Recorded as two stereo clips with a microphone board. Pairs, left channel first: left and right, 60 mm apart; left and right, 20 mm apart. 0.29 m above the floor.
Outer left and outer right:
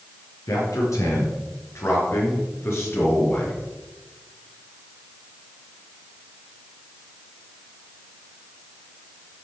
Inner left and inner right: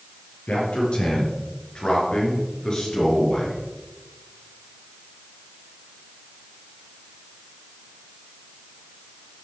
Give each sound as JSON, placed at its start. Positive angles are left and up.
{"t": 0.5, "sound": "a man speaking", "side_deg": 70, "distance_m": 4.5}